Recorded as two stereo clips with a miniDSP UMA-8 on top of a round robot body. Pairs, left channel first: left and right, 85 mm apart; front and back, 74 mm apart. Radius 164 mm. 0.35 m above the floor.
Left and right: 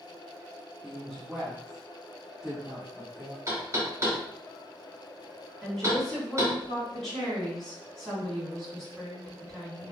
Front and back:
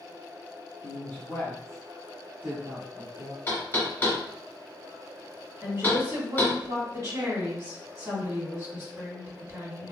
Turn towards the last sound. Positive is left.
turn(degrees=170)